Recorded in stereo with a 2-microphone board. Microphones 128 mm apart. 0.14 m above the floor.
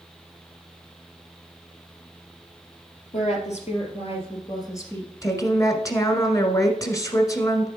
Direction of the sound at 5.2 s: 25° left (ahead or behind).